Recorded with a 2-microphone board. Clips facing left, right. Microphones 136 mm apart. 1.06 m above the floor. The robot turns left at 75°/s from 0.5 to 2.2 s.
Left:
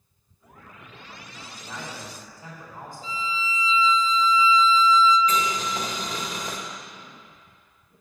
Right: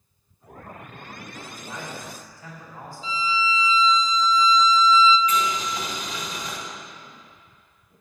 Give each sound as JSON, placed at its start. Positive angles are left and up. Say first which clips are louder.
{"t": 1.3, "sound": "a man speaking", "louder": "right 1 dB", "azimuth_deg": -135, "distance_m": 3.5}
{"t": 3.0, "sound": "a violin", "louder": "right 5 dB", "side_deg": 50, "distance_m": 0.8}
{"t": 5.3, "sound": "boiling", "louder": "right 1 dB", "side_deg": 40, "distance_m": 1.7}